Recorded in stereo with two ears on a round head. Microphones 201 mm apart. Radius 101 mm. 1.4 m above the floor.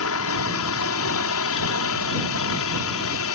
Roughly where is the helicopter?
Left.